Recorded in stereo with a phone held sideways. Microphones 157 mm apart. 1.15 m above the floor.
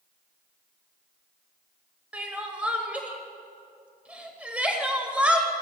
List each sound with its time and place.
2.1 s crying: 10° right (ahead or behind), 1.0 m